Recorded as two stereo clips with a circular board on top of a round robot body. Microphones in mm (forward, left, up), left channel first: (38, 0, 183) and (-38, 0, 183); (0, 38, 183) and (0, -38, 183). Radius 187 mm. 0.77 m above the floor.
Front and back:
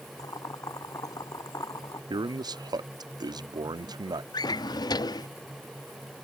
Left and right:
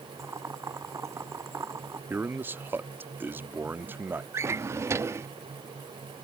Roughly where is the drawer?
Ahead right.